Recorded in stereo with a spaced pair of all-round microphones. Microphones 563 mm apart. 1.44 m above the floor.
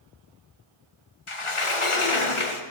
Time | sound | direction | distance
1.3 | a sliding door | 60° left (ahead or behind) | 1.2 m